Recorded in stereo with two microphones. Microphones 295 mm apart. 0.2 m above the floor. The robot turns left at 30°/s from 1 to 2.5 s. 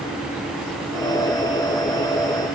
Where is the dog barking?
No dog barking in this recording.